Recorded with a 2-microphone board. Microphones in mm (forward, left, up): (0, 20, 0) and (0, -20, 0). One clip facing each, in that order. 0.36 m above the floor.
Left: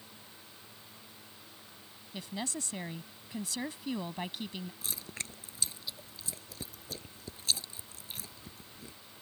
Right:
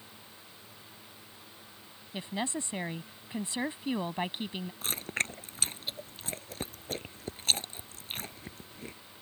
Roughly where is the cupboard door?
I don't hear a cupboard door.